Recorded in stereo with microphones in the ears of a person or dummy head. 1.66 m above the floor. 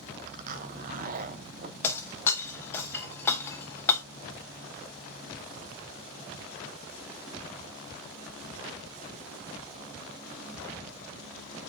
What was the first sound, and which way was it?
A zipper, 50° right (ahead or behind).